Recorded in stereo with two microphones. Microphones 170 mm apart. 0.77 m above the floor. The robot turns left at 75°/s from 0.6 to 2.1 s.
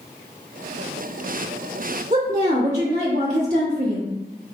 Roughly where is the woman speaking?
Right.